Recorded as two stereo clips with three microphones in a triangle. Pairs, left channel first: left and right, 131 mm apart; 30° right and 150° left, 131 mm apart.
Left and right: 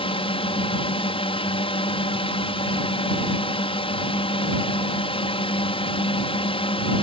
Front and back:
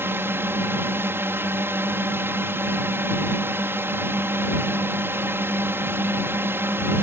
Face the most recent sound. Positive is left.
turn(degrees=85)